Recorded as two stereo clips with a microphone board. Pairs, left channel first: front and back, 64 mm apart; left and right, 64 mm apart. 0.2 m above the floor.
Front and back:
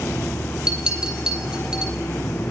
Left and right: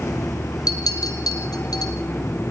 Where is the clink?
100° left, 3 m.